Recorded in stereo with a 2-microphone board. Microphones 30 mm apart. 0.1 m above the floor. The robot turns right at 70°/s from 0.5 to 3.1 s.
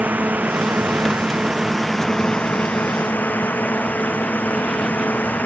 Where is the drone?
75° right (ahead or behind); by 5.5 s 80° left.